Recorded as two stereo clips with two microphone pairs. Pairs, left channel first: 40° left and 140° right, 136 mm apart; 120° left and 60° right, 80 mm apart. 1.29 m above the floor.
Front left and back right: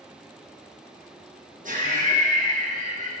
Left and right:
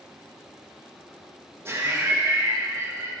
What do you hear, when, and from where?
1.6 s laughter: 120° right, 1.2 m